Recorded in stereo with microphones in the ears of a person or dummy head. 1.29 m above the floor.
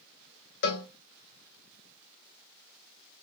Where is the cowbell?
50° left (ahead or behind), 0.9 m.